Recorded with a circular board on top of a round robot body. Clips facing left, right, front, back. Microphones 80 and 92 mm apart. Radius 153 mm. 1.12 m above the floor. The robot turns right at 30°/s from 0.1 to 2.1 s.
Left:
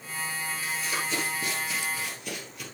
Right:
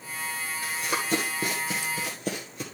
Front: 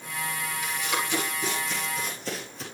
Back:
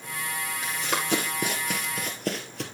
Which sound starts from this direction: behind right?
Running footsteps, at 0.6 s.